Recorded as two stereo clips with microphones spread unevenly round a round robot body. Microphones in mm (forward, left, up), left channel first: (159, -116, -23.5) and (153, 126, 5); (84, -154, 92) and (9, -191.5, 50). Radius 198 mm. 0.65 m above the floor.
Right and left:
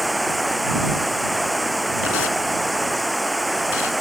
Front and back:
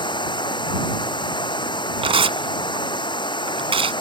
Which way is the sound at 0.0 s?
Straight ahead.